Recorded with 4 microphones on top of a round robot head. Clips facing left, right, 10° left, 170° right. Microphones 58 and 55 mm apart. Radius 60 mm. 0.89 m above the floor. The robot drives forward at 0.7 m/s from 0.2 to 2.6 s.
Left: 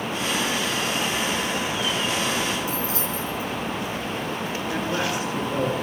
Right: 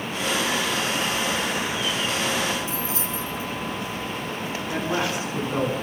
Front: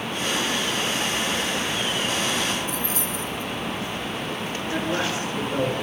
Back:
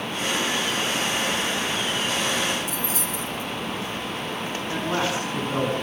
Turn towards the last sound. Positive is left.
turn(degrees=-150)